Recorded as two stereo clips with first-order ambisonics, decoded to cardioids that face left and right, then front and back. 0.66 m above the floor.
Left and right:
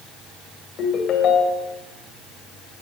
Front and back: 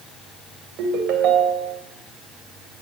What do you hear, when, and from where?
0.8 s a ringtone: 145° left, 2 m